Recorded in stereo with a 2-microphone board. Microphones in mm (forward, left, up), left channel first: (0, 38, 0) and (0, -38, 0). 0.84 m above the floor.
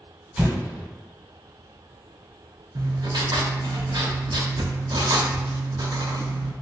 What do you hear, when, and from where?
0.4 s an explosion: 10° right (ahead or behind), 1.5 m
2.8 s writing: 65° right (ahead or behind), 0.6 m